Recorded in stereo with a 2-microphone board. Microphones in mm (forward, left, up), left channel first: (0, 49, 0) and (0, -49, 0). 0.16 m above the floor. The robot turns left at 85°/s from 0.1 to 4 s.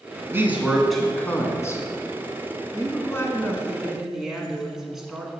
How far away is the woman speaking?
About 1.6 m.